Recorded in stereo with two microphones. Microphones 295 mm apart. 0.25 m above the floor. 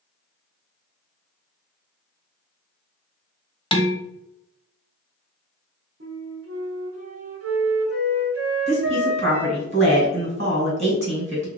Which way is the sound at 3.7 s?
15° left (ahead or behind).